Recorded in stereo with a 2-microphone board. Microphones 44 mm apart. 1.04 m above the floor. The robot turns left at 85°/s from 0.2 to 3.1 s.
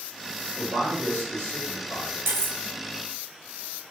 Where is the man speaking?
40° right, 2.0 m; by 2.2 s 175° right, 2.0 m.